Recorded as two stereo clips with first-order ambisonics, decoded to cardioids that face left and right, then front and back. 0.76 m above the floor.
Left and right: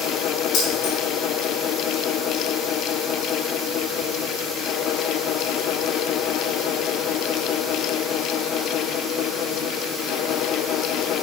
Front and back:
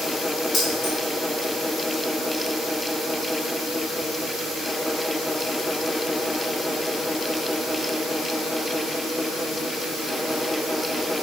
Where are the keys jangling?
70° left, 5.5 m.